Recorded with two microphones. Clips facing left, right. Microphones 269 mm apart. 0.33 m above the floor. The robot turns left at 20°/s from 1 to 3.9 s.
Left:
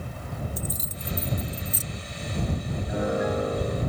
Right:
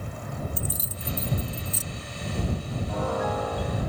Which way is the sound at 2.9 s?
15° left (ahead or behind).